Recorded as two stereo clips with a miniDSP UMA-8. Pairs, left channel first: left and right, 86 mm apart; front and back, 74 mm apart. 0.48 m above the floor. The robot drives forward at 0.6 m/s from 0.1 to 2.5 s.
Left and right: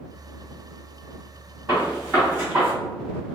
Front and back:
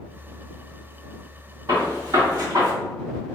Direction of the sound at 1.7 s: 155° right.